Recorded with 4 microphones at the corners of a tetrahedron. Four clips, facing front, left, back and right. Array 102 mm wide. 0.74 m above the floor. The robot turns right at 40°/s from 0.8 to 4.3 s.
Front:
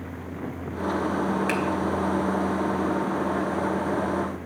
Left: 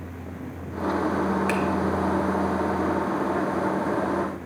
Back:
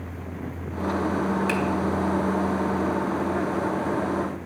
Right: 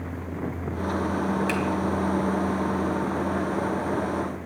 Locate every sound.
1.5 s a finger snap: 45° left, 2.5 m; by 1.6 s 50° left, 2.5 m